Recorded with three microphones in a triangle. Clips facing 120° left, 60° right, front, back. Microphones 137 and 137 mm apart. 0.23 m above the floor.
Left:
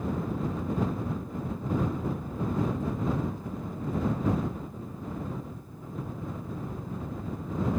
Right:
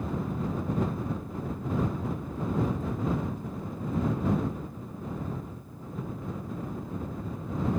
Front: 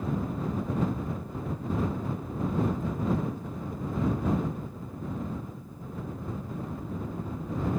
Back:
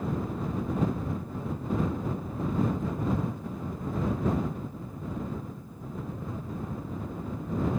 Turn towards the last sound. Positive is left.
No sound to turn to.